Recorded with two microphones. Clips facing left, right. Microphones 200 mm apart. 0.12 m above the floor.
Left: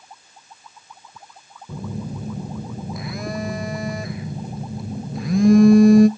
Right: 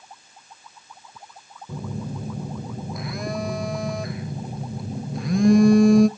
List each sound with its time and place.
1.7 s a phone buzzing: centre (ahead or behind), 0.5 m